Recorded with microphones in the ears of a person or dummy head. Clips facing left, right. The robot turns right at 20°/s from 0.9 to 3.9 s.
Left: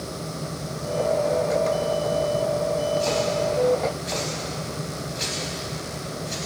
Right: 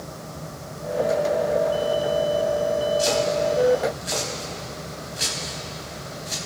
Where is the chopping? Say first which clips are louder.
Right 2 dB; 30° right (ahead or behind), 4 m; by 6.3 s 10° right (ahead or behind), 4 m.